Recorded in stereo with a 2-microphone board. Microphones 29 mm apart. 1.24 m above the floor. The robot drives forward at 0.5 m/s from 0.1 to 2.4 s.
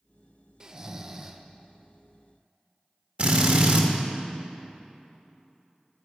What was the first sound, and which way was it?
Snoring, 25° right (ahead or behind).